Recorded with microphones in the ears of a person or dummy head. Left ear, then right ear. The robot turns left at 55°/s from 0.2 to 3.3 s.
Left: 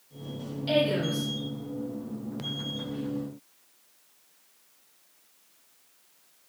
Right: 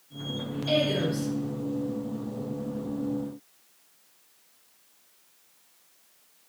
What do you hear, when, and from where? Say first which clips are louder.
0.7 s a woman speaking: even; straight behind, 0.9 m; by 1.3 s 145° left, 0.9 m